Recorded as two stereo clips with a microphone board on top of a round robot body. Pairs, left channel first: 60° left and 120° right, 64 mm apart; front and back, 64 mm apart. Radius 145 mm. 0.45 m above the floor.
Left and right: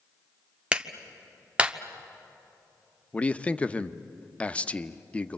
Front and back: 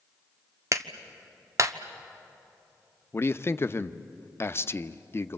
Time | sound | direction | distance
0.7 | a clap | 175° left | 1.2 m
3.1 | a man speaking | 5° left | 0.8 m